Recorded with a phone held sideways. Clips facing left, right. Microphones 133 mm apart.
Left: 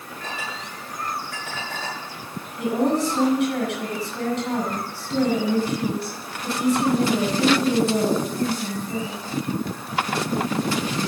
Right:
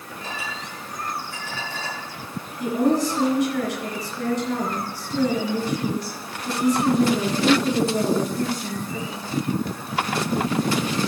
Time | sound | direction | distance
0.2 | a clink | 80° left | 8.5 m
2.6 | a woman speaking | 80° left | 8.5 m